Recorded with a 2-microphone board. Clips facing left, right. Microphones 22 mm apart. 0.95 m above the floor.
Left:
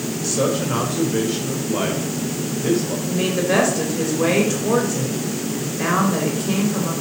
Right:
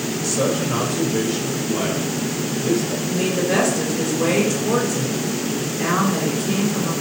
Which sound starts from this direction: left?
A woman speaking, at 3.1 s.